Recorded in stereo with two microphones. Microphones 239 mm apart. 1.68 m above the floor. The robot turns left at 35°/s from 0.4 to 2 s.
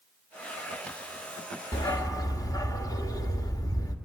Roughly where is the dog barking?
Centre.